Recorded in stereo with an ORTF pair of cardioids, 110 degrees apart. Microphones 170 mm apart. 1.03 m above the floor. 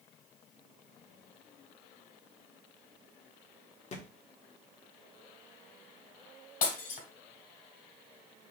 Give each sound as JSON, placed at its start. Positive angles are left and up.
{"t": 3.9, "sound": "a thud", "azimuth_deg": 40, "distance_m": 1.4}
{"t": 6.6, "sound": "breaking glass", "azimuth_deg": 55, "distance_m": 2.0}